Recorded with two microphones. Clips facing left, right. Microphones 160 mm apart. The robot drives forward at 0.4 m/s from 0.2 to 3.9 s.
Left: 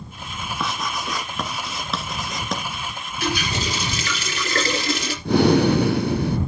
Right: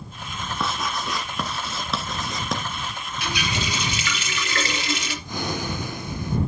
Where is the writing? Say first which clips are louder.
Even; centre (ahead or behind), 1.3 m.